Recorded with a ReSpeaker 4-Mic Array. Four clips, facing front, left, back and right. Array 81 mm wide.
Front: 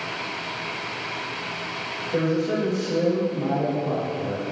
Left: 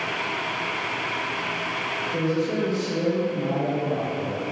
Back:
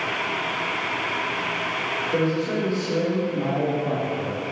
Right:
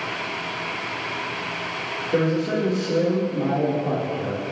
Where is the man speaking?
110° right, 4 m.